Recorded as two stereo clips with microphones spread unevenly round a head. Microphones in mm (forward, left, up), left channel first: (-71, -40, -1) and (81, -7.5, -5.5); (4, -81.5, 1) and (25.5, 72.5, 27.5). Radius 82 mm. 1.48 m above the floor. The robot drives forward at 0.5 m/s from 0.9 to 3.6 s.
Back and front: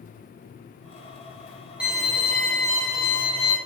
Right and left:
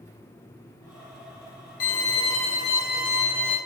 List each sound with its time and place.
1.8 s a violin: 70° right, 1.2 m; by 3.6 s 125° right, 1.3 m